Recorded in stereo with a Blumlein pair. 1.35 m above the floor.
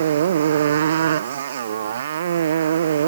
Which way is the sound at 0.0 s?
60° right.